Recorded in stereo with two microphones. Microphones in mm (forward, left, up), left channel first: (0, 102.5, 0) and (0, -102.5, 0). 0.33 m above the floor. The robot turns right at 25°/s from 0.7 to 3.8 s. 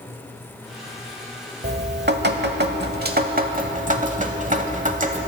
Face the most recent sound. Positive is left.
turn(degrees=-50)